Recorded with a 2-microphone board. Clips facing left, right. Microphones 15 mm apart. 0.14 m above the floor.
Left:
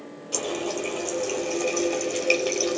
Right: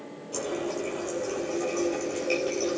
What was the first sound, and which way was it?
A running tap, 45° left (ahead or behind).